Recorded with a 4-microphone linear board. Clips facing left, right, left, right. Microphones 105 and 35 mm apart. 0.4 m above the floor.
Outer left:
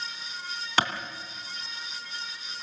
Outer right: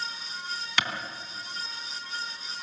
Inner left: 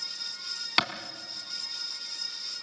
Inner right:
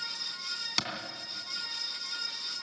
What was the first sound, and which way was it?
A clap, 35° left (ahead or behind).